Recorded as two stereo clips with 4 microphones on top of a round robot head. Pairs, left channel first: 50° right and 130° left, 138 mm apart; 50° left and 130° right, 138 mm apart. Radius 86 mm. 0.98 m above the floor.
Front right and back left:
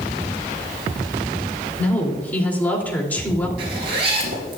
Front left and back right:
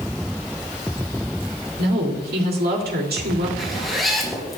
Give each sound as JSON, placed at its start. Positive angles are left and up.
{"t": 1.8, "sound": "a woman speaking", "azimuth_deg": -125, "distance_m": 3.0}
{"t": 3.6, "sound": "a zipper", "azimuth_deg": 140, "distance_m": 3.0}